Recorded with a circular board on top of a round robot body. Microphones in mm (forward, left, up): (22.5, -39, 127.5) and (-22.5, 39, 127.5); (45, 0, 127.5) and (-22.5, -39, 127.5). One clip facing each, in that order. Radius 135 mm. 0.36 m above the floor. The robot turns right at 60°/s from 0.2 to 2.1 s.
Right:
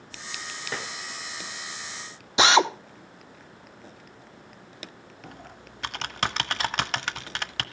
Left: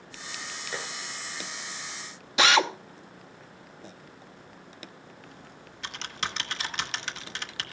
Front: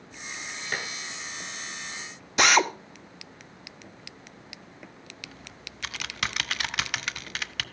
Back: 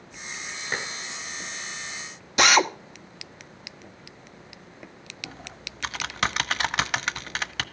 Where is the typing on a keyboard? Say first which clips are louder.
Right 3 dB, back 4 dB; 95° right, 1.1 m.